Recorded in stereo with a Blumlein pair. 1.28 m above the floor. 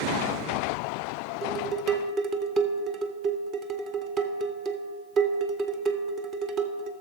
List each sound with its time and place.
1.4 s dishes clattering: 30° right, 0.7 m